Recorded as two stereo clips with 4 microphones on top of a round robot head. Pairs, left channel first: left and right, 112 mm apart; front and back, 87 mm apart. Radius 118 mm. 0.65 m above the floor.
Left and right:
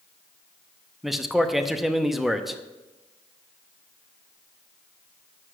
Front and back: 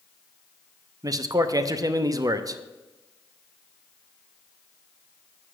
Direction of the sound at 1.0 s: 175° right.